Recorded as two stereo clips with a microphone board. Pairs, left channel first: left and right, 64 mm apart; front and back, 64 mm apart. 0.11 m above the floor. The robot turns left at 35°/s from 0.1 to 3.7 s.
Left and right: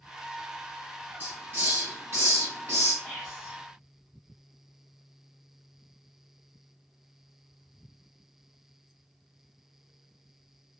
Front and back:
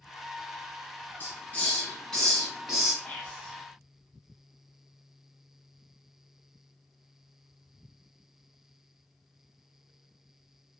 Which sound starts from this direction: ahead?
Whispering, at 3.0 s.